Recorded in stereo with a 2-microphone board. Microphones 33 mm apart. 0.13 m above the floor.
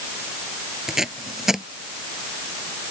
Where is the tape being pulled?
15° right (ahead or behind).